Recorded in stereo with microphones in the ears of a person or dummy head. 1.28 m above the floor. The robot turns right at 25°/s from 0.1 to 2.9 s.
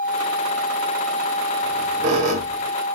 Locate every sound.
1.6 s a squeak: 35° right (ahead or behind), 1.1 m; by 2.7 s 50° right (ahead or behind), 1.1 m